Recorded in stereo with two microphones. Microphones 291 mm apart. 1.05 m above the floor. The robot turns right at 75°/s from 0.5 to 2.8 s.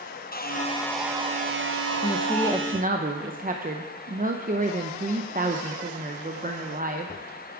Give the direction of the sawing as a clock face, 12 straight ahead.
7 o'clock.